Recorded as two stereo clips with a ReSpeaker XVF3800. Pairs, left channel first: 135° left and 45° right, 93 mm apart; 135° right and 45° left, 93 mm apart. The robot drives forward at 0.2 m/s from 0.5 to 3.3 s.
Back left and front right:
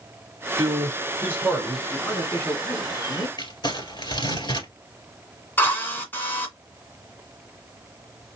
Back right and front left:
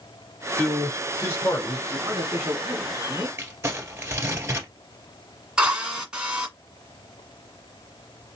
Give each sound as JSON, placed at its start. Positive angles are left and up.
{"t": 0.6, "sound": "a man speaking", "azimuth_deg": -80, "distance_m": 1.3}
{"t": 1.9, "sound": "a man speaking", "azimuth_deg": 85, "distance_m": 1.3}
{"t": 3.4, "sound": "crumpling", "azimuth_deg": 110, "distance_m": 1.8}
{"t": 5.6, "sound": "a drill", "azimuth_deg": 115, "distance_m": 1.8}